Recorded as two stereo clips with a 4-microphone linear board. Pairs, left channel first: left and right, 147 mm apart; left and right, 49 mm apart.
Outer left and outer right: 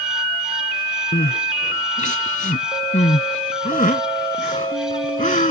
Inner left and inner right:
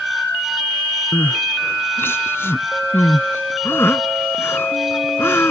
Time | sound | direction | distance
1.1 | crying | 60° left (ahead or behind) | ?